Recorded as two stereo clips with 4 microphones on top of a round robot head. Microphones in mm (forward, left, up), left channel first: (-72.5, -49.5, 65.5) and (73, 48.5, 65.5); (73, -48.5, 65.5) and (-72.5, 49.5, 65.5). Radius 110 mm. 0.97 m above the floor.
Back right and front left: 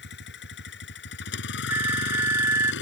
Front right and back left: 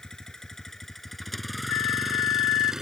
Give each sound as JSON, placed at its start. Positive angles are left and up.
{"t": 0.0, "sound": "a vehicle", "azimuth_deg": -120}
{"t": 1.7, "sound": "a flute", "azimuth_deg": -40}